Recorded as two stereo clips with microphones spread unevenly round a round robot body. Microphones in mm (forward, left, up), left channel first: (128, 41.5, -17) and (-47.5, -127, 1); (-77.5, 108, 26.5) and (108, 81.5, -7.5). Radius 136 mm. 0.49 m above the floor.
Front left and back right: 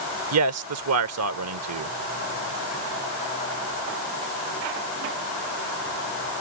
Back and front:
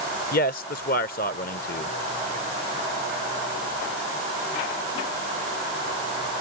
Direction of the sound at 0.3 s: 135° right.